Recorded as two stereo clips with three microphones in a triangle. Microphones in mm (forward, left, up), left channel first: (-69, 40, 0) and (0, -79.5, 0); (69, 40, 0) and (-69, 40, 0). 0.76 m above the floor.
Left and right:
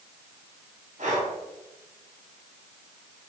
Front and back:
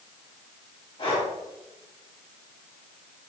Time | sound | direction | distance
1.0 | breathing | 45° right | 1.6 m